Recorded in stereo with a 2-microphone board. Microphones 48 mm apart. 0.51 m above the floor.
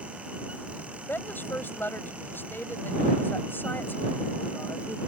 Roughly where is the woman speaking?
Left.